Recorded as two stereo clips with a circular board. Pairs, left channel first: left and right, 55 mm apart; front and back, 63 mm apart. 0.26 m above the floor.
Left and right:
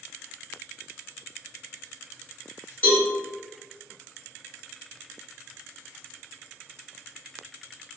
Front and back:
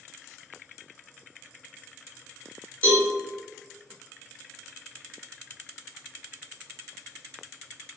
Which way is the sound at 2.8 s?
50° left.